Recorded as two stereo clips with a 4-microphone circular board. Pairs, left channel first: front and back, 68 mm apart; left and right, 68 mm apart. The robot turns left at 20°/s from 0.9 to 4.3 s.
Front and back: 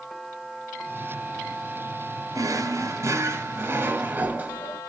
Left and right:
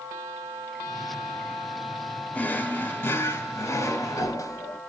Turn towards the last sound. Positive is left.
turn(degrees=120)